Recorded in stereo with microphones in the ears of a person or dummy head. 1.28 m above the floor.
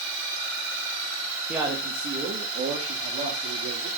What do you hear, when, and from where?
1.5 s a man speaking: 10° right (ahead or behind), 1.9 m; by 3.9 s 45° right (ahead or behind), 4 m